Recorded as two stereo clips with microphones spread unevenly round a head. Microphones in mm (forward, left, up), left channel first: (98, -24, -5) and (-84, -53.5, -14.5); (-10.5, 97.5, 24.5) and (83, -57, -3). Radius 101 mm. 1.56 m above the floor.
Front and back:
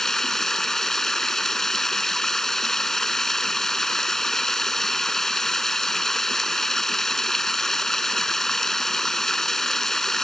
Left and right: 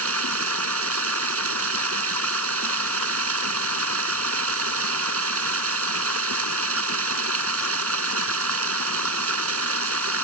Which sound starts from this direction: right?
Running water, at 0.0 s.